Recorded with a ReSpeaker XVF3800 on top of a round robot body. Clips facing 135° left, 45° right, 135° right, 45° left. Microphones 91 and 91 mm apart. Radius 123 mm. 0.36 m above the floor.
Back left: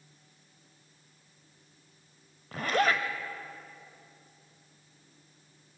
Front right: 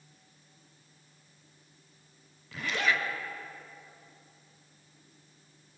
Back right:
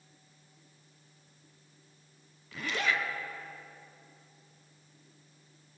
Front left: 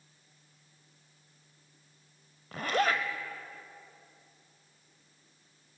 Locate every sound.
2.5 s a zipper: 90° left, 1.4 m